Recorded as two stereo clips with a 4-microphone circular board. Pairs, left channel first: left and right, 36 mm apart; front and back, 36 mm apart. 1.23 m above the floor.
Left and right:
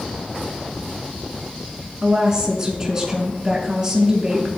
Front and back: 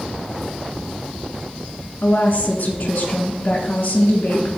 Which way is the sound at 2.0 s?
30° right.